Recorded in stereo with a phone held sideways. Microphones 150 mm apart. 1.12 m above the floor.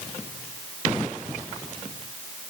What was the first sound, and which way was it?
Only background noise.